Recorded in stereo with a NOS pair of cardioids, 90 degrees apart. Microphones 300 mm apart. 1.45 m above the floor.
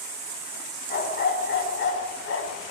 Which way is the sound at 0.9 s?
35° left.